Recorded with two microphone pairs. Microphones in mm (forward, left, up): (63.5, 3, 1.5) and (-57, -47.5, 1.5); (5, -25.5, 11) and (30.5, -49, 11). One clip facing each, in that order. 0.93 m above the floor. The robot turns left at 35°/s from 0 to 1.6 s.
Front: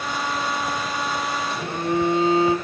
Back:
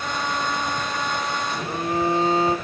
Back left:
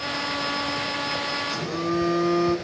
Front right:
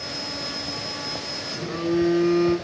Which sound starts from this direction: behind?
A phone buzzing, at 1.5 s.